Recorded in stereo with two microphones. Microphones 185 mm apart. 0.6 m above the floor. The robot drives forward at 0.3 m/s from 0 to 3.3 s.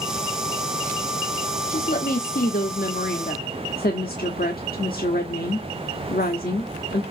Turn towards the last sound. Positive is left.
turn(degrees=50)  # may be behind; listen again after turning